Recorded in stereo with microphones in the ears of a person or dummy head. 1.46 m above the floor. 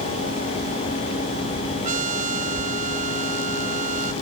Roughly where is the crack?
No crack in this recording.